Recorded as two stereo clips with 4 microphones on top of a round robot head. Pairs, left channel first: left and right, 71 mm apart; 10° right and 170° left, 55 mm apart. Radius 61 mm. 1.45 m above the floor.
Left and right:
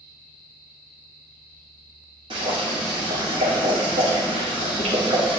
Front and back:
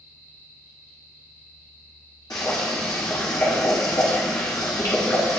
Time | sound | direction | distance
2.3 | boiling | 55° right | 1.7 m